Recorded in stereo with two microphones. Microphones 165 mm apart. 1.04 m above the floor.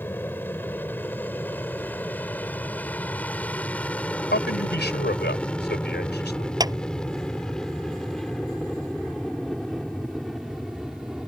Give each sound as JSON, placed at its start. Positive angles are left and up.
{"t": 0.0, "sound": "an aircraft", "side_deg": 10}
{"t": 4.3, "sound": "a man speaking", "side_deg": 80}
{"t": 6.6, "sound": "a clap", "side_deg": -20}